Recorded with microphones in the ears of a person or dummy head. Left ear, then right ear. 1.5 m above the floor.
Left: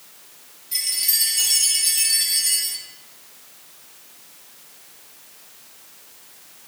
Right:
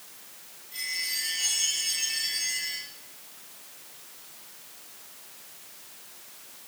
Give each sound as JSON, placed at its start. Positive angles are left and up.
{"t": 0.7, "sound": "a chime", "side_deg": 50, "distance_m": 2.5}